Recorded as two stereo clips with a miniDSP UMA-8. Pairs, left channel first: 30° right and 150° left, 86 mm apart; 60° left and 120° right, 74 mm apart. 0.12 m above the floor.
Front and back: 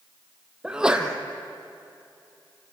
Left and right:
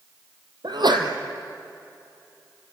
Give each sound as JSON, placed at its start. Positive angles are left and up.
{"t": 0.6, "sound": "a sneeze", "azimuth_deg": -130, "distance_m": 3.0}